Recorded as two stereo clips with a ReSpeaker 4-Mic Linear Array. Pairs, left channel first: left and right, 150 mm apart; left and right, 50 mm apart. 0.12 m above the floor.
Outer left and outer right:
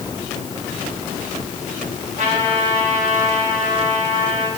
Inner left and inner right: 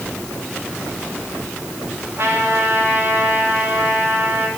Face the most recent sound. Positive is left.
turn(degrees=-55)  # may be behind; listen again after turning